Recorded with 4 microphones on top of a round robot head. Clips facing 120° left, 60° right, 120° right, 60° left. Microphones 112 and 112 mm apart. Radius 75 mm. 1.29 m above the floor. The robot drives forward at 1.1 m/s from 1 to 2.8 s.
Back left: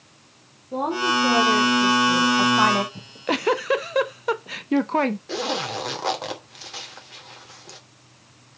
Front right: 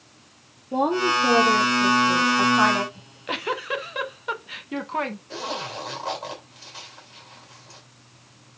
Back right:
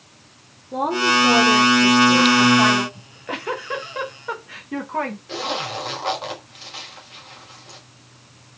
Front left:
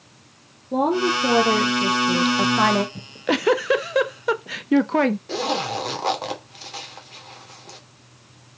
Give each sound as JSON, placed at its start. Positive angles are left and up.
{"t": 0.7, "sound": "a woman speaking", "azimuth_deg": 20, "distance_m": 3.0}
{"t": 3.0, "sound": "a giggle", "azimuth_deg": 70, "distance_m": 0.7}
{"t": 5.3, "sound": "a zipper", "azimuth_deg": 105, "distance_m": 2.5}